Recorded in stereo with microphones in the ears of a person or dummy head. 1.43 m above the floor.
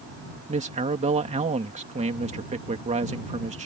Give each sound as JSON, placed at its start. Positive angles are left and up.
{"t": 0.5, "sound": "a man speaking", "side_deg": -30}